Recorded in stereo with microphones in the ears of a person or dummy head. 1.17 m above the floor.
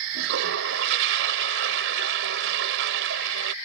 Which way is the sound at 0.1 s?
70° right (ahead or behind).